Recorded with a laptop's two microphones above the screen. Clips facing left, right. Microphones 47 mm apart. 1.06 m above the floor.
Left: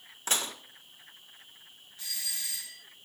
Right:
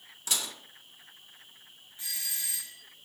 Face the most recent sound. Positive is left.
turn(degrees=-25)  # may be behind; listen again after turning